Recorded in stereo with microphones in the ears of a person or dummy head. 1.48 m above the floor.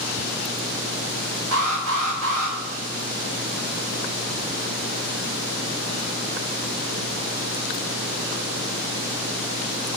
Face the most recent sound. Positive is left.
turn(degrees=-90)